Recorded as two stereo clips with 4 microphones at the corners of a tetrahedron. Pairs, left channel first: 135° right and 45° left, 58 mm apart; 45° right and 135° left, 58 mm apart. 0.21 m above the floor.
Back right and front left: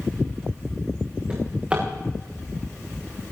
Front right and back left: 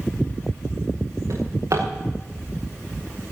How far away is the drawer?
About 6 m.